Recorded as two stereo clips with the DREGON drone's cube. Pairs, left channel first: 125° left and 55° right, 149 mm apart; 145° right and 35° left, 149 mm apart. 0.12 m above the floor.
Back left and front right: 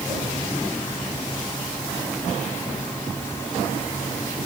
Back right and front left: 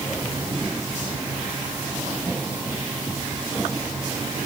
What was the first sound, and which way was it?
Only background noise.